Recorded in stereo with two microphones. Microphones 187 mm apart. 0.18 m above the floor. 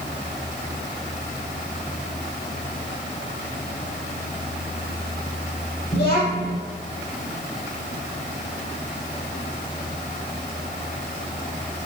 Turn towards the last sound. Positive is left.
turn(degrees=30)  # may be behind; listen again after turning